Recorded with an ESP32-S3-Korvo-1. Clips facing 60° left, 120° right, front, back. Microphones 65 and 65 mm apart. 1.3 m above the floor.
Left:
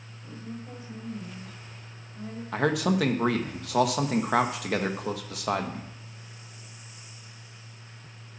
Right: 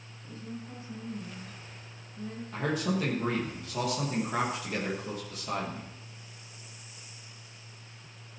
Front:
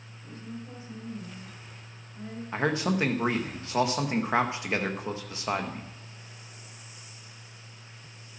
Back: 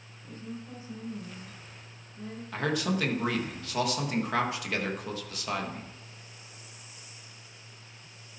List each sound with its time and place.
0.2 s a woman speaking: 75° left, 6 m; by 2.4 s 60° left, 6 m
2.5 s a man speaking: 65° left, 1.5 m